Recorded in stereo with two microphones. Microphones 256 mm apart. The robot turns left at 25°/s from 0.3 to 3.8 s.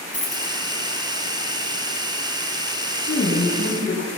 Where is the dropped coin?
70° left (ahead or behind), 3 m; by 0.5 s 75° left (ahead or behind), 3 m.